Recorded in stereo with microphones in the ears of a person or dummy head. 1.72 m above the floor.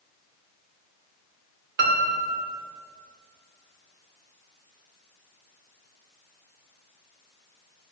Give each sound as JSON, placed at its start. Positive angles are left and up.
{"t": 1.8, "sound": "a piano", "side_deg": -65, "distance_m": 0.8}